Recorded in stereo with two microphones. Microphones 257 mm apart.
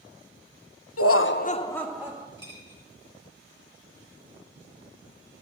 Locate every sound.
1.0 s laughter: 70° left (ahead or behind), 0.6 m; by 2.3 s 15° right (ahead or behind), 0.9 m
2.4 s a dropped coin: 20° left (ahead or behind), 3 m